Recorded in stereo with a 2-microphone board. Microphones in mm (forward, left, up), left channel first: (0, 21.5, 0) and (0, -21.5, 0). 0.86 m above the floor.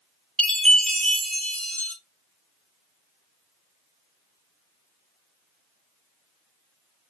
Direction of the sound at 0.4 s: 20° left (ahead or behind).